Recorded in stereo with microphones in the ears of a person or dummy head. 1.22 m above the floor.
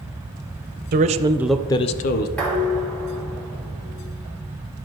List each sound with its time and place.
0.9 s a man speaking: 40° right (ahead or behind), 0.6 m; by 2.3 s 45° left (ahead or behind), 0.7 m
2.4 s dishes clattering: 5° left (ahead or behind), 1.5 m